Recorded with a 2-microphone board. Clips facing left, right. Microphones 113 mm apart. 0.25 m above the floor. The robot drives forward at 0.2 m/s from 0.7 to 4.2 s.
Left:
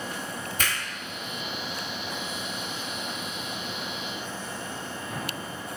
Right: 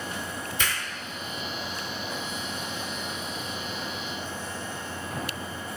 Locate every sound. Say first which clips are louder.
0.6 s a finger snap: even; 50° left (ahead or behind), 1.9 m